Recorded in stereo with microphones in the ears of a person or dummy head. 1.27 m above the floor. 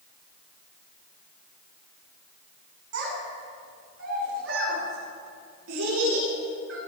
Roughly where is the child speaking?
Right.